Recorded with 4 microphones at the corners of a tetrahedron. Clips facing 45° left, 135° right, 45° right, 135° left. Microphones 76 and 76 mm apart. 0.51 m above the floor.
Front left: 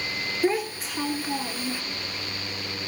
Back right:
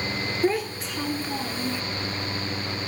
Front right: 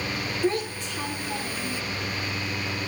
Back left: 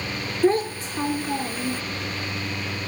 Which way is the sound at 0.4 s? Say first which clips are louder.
Even, back left 7 dB; 130° left.